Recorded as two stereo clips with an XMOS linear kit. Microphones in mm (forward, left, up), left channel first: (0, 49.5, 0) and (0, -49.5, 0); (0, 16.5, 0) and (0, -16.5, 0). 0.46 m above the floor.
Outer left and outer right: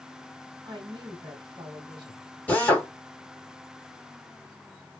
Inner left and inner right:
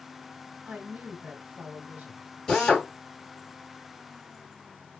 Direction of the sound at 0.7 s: 55° right (ahead or behind).